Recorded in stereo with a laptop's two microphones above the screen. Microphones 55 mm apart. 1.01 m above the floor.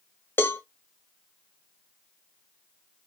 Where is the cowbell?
45° left (ahead or behind), 0.5 m.